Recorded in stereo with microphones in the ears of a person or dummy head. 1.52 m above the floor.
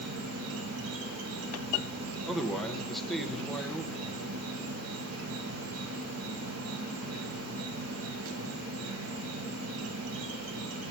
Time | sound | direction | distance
0.0 | an insect | 75° right (ahead or behind) | 1.2 m
2.3 | a man speaking | centre (ahead or behind) | 1.1 m